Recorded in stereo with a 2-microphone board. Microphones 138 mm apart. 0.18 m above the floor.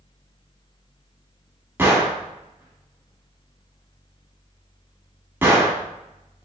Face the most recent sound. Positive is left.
turn(degrees=-15)  # may be behind; listen again after turning